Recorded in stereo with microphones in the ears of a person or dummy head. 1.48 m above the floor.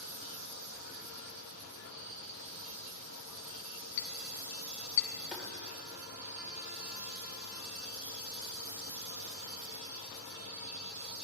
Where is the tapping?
5° right (ahead or behind), 2 m.